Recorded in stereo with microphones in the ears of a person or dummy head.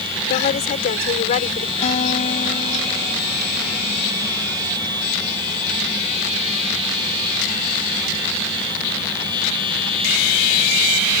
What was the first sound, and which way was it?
A woman speaking, 45° left (ahead or behind).